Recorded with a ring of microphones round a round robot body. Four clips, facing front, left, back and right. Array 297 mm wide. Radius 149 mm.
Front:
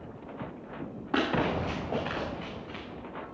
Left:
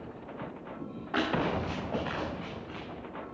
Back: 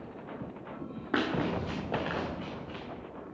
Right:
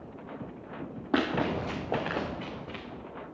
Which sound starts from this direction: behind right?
Running footsteps, at 1.1 s.